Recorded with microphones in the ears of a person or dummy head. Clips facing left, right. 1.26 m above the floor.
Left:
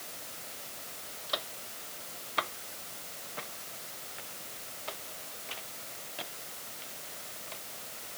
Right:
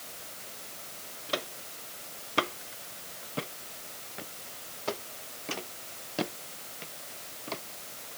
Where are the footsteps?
35° right (ahead or behind); by 7.6 s 65° right (ahead or behind).